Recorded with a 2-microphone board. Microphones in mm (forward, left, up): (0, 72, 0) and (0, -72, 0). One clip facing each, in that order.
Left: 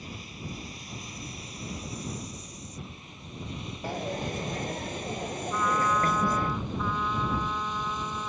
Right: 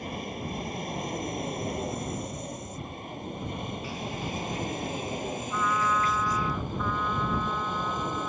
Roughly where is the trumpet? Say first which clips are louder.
Left 1 dB; centre.